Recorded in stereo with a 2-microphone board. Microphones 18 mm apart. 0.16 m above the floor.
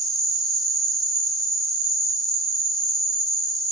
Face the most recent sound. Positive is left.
turn(degrees=15)  # may be behind; listen again after turning